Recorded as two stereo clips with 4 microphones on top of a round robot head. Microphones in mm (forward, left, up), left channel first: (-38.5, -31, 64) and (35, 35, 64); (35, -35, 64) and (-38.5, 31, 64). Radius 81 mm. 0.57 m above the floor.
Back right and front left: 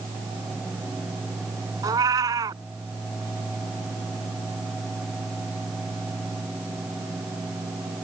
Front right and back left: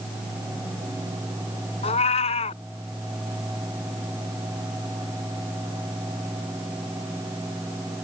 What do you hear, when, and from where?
1.8 s a cat meowing: 15° right